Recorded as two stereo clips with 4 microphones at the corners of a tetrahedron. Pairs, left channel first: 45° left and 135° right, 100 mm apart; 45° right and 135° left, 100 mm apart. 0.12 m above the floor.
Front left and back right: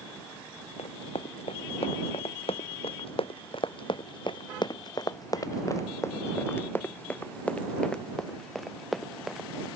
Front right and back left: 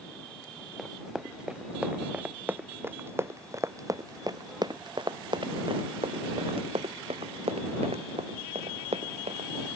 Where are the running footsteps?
50° left; by 9.7 s 140° left.